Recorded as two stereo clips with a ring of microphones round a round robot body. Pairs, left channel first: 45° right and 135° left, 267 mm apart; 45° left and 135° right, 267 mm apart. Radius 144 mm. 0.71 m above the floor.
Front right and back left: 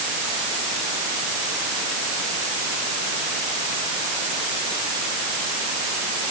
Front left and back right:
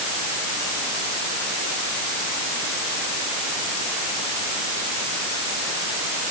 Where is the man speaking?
No man speaking in this recording.